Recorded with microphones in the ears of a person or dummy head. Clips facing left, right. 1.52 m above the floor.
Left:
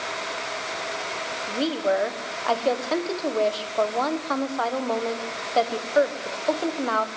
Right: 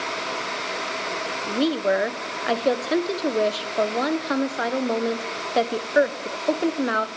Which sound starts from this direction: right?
A woman speaking, at 1.5 s.